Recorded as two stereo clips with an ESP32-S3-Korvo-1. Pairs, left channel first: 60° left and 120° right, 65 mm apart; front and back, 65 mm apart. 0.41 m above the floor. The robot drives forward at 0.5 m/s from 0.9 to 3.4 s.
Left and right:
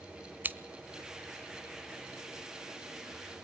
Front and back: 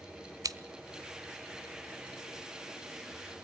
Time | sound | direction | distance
0.4 | scissors | straight behind | 0.8 m